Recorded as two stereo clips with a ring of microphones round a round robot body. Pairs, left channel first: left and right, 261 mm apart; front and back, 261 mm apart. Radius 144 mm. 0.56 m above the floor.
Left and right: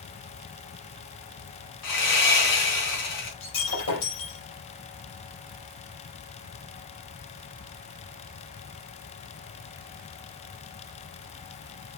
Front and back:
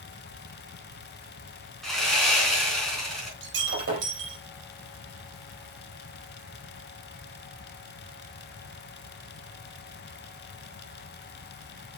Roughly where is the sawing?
Left.